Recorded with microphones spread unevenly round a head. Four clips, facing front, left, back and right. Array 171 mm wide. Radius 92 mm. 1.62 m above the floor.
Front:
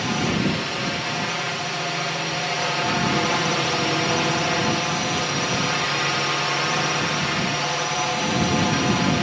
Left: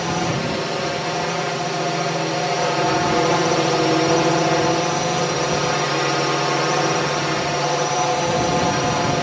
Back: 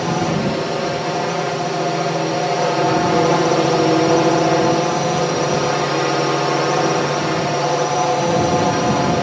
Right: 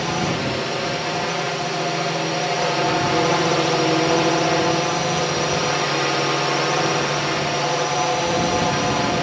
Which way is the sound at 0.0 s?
175° left.